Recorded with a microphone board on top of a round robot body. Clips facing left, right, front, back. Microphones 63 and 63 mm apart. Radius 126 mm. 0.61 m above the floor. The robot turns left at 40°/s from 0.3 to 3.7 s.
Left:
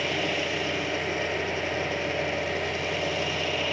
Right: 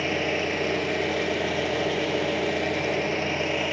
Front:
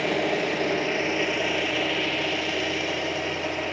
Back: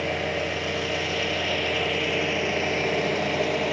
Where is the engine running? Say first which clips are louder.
Right 2 dB, front 2 dB; 25° right, 9 m; by 3.7 s 160° right, 9 m.